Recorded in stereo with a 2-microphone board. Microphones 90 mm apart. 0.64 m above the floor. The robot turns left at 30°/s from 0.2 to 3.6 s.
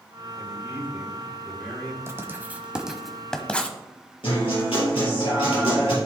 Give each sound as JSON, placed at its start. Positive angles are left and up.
{"t": 0.4, "sound": "a man speaking", "azimuth_deg": -145, "distance_m": 4.0}
{"t": 2.1, "sound": "writing", "side_deg": -30, "distance_m": 1.1}
{"t": 4.2, "sound": "a guitar", "side_deg": 85, "distance_m": 4.0}